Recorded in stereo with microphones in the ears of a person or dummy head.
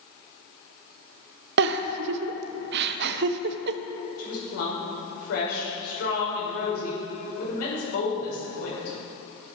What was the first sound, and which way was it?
A giggle, 65° right (ahead or behind).